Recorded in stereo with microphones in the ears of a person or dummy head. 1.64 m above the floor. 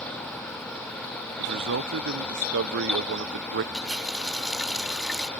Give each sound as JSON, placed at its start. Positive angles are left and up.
{"t": 1.4, "sound": "a man speaking", "side_deg": -60}
{"t": 3.7, "sound": "a running tap", "side_deg": 0}